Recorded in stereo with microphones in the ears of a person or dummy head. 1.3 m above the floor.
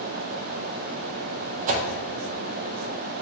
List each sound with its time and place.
1.7 s a whoosh: 40° right (ahead or behind), 0.6 m